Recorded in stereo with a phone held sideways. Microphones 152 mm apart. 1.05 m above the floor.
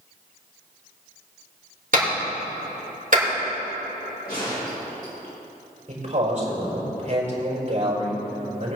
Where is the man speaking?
55° right (ahead or behind), 4.5 m.